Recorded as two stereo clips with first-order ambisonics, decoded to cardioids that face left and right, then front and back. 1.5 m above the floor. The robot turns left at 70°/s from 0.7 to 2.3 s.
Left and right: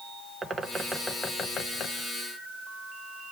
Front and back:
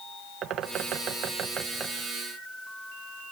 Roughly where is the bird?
Behind.